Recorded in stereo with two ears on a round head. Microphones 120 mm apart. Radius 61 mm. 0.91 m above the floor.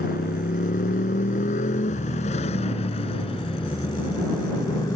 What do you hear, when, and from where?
0.0 s a motorcycle: 75° left (ahead or behind); by 5.0 s 30° left (ahead or behind)